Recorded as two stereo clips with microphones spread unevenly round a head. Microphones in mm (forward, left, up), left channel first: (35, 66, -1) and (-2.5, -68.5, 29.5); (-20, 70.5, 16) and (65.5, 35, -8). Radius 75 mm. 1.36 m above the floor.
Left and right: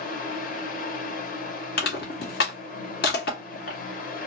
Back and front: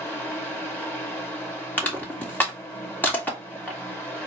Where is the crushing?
90° left, 1.9 m.